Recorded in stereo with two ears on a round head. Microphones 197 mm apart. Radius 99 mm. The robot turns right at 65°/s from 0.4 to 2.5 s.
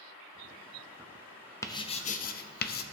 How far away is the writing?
About 0.5 m.